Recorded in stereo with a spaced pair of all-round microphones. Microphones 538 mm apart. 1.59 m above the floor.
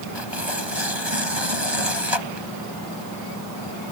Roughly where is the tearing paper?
Right.